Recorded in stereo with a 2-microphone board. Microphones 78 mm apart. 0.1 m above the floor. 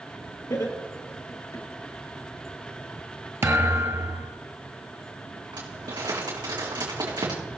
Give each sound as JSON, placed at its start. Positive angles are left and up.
{"t": 0.5, "sound": "laughter", "side_deg": 50, "distance_m": 2.0}
{"t": 3.4, "sound": "a thud", "side_deg": -35, "distance_m": 1.0}
{"t": 5.5, "sound": "crumpling", "side_deg": -80, "distance_m": 3.5}